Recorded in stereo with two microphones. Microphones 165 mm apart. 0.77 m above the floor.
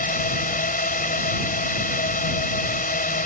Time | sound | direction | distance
0.0 | a drone | 65° left (ahead or behind) | ?